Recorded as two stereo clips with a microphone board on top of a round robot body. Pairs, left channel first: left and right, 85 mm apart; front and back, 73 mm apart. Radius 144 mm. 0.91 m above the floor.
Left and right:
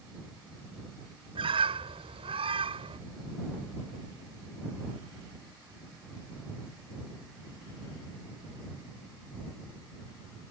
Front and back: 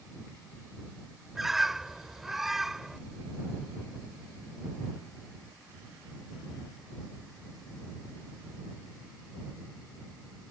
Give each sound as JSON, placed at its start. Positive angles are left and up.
{"t": 1.4, "sound": "a bird", "azimuth_deg": -95}